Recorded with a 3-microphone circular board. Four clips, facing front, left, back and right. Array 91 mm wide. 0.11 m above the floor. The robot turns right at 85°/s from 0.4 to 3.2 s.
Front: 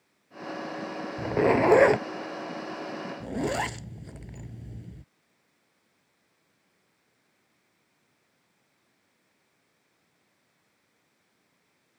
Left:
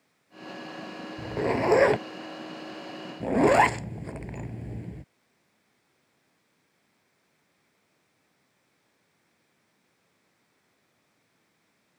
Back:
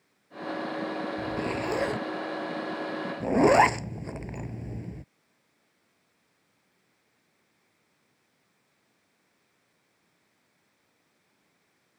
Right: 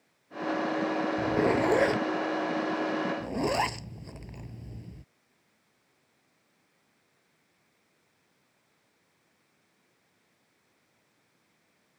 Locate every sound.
1.2 s a zipper: 25° right; by 5.0 s 145° left